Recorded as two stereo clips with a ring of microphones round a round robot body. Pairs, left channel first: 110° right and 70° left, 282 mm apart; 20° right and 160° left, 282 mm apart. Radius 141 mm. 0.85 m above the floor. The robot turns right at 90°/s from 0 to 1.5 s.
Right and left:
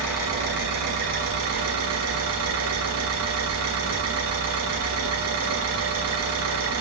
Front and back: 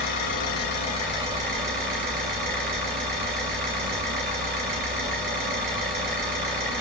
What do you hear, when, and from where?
0.0 s an engine running: 35° right, 3 m; by 6.8 s 100° left, 3 m